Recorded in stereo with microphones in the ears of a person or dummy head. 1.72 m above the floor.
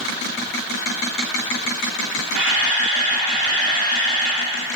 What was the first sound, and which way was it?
A camera shutter, 25° right (ahead or behind).